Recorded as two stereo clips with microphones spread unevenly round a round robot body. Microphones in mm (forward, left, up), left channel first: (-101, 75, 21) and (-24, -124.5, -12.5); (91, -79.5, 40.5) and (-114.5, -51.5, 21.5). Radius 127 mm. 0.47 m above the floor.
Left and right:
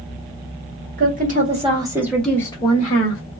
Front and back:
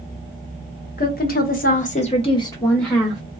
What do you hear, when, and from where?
1.0 s a woman speaking: 45° right, 1.4 m; by 3.2 s 95° left, 1.0 m